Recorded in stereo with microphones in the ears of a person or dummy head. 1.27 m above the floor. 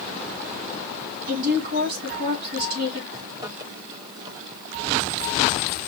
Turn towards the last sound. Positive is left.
turn(degrees=-25)  # may be behind; listen again after turning